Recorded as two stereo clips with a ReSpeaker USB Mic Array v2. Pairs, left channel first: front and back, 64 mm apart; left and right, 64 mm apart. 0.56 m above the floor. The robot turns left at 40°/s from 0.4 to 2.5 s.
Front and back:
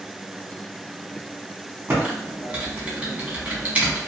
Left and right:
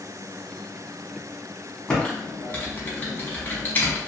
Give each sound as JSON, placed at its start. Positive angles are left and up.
{"t": 1.9, "sound": "typing on a keyboard", "azimuth_deg": 155, "distance_m": 0.9}